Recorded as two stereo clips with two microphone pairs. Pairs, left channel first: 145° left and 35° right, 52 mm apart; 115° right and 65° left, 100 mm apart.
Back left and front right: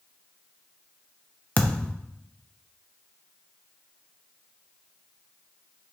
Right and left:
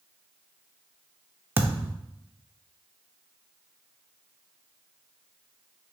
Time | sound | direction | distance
1.6 | a thud | 115° left | 0.5 m